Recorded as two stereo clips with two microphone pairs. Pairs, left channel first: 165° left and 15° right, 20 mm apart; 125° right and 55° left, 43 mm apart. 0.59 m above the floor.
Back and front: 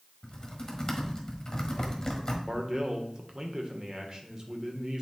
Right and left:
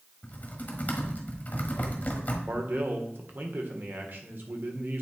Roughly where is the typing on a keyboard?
Behind right.